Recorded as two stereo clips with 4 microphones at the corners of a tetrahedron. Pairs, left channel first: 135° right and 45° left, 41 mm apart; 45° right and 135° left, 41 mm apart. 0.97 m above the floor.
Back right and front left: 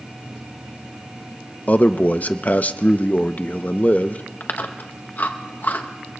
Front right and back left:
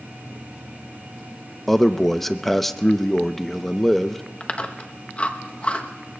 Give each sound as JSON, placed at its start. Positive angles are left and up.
{"t": 1.7, "sound": "a man speaking", "azimuth_deg": -130, "distance_m": 0.5}
{"t": 4.4, "sound": "chewing", "azimuth_deg": -105, "distance_m": 0.8}